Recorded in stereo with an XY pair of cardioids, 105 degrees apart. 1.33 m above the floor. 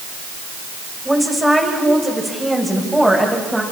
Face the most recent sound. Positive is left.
turn(degrees=-10)